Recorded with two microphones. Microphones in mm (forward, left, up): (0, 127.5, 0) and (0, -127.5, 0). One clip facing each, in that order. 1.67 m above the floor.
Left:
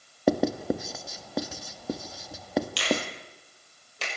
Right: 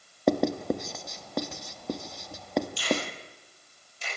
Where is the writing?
5° left (ahead or behind), 1.4 m.